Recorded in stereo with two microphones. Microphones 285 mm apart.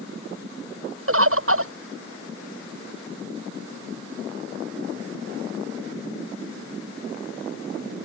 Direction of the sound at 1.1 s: 50° right (ahead or behind).